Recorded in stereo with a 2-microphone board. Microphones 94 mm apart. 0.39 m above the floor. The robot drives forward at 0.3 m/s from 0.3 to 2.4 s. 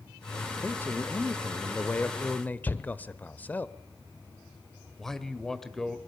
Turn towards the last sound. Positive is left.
turn(degrees=5)  # may be behind; listen again after turning